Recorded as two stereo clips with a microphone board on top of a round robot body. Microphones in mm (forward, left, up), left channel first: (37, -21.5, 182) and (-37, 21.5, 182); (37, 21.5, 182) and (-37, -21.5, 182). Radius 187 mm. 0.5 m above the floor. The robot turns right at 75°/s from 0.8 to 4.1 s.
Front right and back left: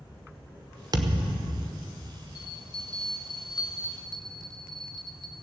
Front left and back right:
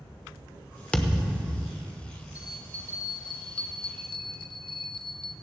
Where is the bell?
75° right, 0.5 m; by 5.3 s 55° left, 0.5 m.